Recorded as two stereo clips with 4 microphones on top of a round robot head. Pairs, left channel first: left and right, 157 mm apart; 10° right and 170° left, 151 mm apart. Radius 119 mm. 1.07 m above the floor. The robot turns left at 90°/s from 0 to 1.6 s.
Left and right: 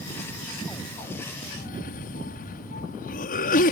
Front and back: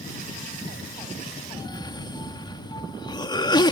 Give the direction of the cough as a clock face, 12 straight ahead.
10 o'clock.